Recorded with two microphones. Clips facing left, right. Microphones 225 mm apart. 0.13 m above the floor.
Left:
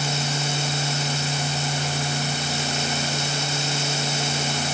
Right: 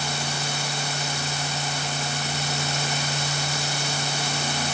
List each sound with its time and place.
Only background noise.